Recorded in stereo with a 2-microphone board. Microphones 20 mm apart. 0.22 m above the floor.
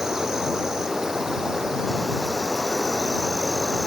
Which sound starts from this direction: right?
An insect, at 0.0 s.